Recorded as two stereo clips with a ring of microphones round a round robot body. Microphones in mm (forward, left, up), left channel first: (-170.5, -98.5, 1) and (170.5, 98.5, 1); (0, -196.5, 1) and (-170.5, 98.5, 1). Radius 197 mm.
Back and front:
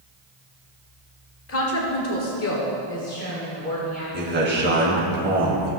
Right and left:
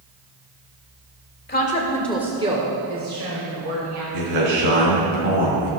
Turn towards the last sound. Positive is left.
turn(degrees=95)